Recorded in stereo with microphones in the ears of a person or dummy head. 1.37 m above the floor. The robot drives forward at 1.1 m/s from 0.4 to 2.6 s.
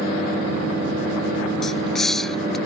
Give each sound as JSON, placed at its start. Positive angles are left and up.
{"t": 1.6, "sound": "a hiss", "side_deg": 5}